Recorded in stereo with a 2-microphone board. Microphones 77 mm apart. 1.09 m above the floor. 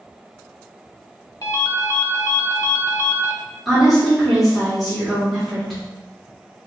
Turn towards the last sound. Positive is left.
turn(degrees=5)  # may be behind; listen again after turning